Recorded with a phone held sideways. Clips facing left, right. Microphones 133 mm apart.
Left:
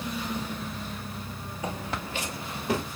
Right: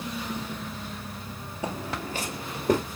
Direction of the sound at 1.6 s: 30° right (ahead or behind).